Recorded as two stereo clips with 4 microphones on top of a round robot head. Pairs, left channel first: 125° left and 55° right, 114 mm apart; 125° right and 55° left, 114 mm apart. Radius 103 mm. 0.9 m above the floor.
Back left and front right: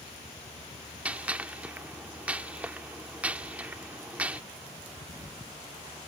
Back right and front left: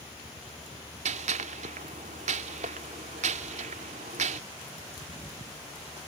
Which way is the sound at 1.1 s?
25° left.